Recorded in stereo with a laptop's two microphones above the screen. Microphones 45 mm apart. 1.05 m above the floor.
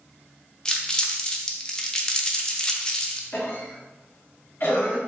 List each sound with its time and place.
0.7 s crumpling: 15° left (ahead or behind), 0.6 m
3.3 s a cough: 60° left (ahead or behind), 2.0 m